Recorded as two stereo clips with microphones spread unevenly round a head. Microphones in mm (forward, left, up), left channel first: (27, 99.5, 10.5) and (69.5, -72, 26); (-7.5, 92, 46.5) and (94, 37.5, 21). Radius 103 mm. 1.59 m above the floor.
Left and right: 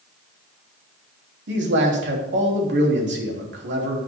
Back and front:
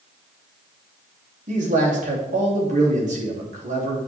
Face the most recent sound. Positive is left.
turn(degrees=-60)